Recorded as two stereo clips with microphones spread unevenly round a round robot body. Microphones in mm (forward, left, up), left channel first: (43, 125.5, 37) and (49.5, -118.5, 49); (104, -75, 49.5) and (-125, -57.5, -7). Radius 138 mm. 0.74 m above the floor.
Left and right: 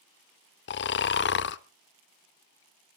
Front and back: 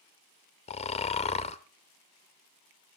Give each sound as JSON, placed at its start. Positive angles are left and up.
{"t": 0.7, "sound": "snoring", "azimuth_deg": 50, "distance_m": 0.5}